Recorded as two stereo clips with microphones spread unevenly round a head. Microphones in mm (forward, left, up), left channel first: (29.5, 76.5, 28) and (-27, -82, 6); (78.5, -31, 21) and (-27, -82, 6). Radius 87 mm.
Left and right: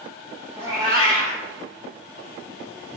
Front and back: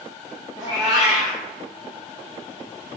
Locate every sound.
0.6 s a cat meowing: straight behind, 0.8 m